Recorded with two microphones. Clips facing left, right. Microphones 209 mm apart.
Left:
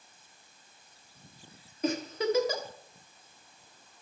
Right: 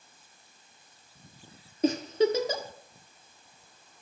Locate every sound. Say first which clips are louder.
1.8 s a giggle: right 5 dB; 30° right (ahead or behind), 1.3 m